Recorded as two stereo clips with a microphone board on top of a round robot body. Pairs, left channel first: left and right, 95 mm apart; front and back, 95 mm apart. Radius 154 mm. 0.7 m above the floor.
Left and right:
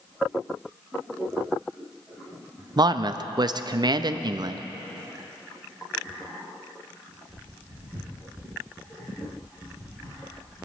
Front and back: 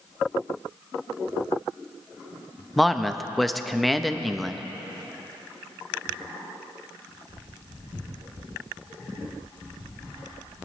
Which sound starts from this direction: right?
A man speaking, at 2.8 s.